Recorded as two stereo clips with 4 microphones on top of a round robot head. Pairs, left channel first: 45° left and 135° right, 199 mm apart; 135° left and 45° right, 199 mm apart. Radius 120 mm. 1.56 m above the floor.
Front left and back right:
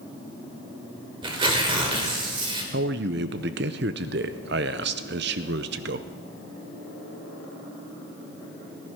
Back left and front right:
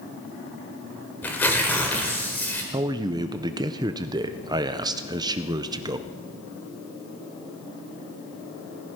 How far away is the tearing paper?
About 1.3 m.